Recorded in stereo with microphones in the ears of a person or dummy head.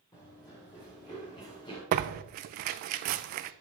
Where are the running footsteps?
15° left (ahead or behind), 2.5 m; by 1.8 s 25° left (ahead or behind), 3 m.